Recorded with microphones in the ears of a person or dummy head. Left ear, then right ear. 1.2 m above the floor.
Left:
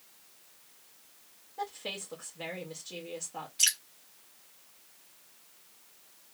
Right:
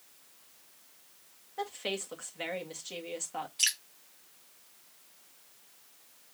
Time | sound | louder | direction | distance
1.6 | a woman speaking | right 2 dB | 50° right (ahead or behind) | 2 m
3.6 | dripping | left 2 dB | 10° right (ahead or behind) | 1.7 m